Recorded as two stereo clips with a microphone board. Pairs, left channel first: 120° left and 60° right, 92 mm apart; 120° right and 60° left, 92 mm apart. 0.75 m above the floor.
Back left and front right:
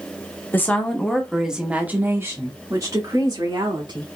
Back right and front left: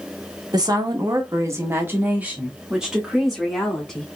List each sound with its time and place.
0.5 s a woman speaking: 60° left, 1.2 m; by 4.1 s 35° right, 2 m